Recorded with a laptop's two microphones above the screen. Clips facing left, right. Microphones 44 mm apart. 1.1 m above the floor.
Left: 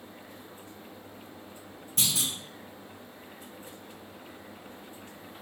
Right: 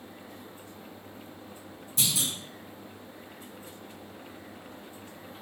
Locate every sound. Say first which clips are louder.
2.0 s a clunk: even; 50° left (ahead or behind), 2.5 m